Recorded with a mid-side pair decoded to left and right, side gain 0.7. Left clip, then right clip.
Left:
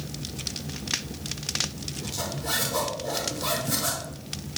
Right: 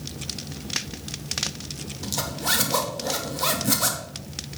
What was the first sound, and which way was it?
A zipper, 50° right.